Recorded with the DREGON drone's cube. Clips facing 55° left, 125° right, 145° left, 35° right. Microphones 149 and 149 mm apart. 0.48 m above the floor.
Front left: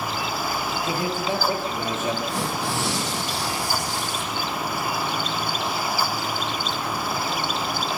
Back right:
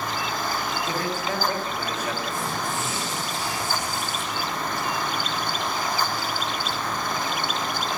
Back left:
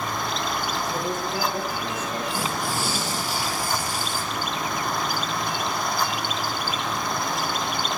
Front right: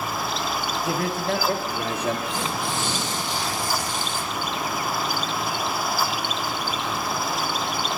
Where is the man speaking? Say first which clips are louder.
Front left 4 dB, front right 3 dB; 15° right, 8 m; by 2.2 s 10° right, 7 m.